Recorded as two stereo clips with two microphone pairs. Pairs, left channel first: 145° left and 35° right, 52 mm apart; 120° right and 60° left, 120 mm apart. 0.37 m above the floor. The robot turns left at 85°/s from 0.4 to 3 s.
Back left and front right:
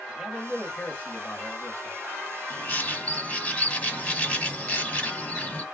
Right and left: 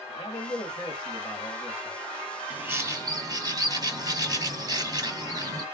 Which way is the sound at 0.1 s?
110° right.